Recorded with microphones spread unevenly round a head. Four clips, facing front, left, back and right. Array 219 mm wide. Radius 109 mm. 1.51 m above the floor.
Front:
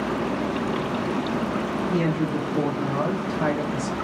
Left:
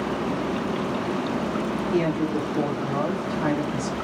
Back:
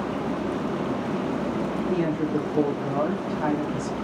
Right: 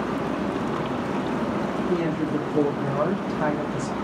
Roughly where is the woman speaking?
Behind right.